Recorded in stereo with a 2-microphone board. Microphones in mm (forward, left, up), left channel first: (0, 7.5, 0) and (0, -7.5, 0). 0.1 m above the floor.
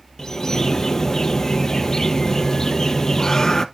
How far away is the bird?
About 0.7 m.